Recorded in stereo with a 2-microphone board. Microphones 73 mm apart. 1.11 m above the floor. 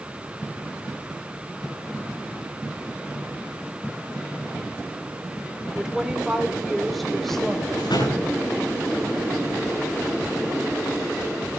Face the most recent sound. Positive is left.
turn(degrees=90)